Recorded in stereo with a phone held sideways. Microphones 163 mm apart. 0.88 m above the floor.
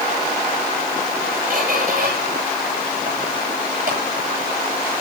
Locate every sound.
1.5 s a squeak: 50° right (ahead or behind), 9 m